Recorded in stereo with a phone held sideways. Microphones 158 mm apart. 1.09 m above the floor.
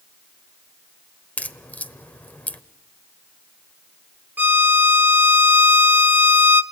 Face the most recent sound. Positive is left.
turn(degrees=-10)  # may be behind; listen again after turning